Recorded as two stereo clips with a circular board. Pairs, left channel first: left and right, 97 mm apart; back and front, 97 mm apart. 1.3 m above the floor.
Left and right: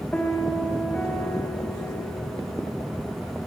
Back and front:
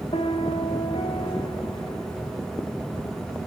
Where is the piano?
165° left, 3.5 m.